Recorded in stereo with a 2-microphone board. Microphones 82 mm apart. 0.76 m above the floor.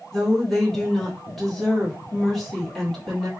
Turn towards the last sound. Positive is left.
turn(degrees=5)  # may be behind; listen again after turning